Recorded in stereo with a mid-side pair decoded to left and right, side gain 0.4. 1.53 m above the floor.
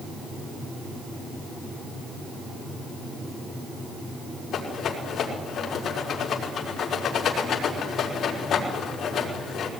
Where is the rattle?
70° left, 5 m.